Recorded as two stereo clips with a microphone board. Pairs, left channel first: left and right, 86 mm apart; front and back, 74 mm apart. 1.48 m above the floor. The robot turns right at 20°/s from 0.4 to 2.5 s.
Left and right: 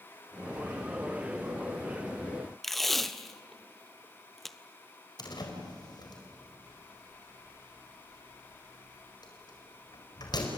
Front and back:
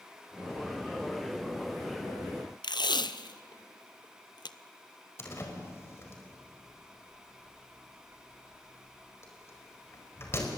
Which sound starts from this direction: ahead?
Tape being pulled, at 2.6 s.